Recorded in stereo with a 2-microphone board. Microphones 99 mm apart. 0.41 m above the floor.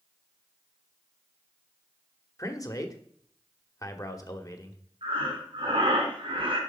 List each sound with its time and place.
2.4 s a man speaking: 35° left (ahead or behind), 1.2 m
5.0 s breathing: 60° right (ahead or behind), 3.5 m